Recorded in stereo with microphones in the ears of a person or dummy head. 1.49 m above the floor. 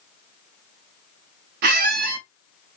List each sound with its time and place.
1.6 s a squeak: 55° right (ahead or behind), 0.8 m